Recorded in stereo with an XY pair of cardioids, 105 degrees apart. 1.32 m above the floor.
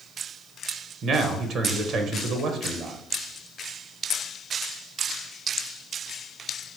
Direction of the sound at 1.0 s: 60° right.